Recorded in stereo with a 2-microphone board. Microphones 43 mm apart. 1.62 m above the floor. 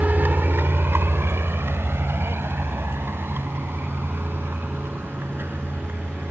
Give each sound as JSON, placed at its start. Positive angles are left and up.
{"t": 0.0, "sound": "a vehicle", "side_deg": -45}